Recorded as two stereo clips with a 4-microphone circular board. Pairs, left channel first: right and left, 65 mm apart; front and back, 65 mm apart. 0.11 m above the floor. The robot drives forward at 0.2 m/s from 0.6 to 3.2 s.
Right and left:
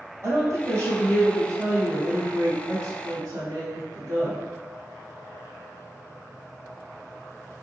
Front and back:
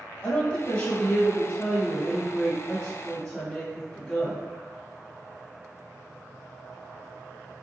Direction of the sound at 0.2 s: 55° left.